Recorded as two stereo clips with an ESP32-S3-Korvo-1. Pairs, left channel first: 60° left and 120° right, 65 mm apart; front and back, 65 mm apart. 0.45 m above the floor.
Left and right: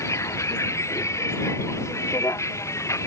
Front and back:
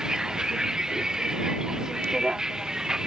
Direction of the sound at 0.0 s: 100° left.